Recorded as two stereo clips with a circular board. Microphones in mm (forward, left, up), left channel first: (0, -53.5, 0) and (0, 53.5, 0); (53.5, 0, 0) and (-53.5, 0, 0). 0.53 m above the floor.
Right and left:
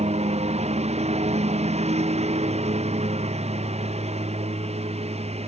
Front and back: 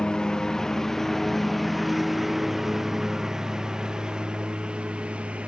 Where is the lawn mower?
85° left; by 5.5 s 100° left.